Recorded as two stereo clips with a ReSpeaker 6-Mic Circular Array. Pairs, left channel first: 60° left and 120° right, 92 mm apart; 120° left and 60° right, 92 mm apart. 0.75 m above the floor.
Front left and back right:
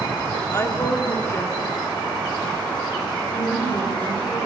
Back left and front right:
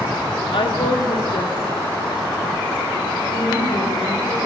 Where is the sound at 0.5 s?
115° left, 1.9 m.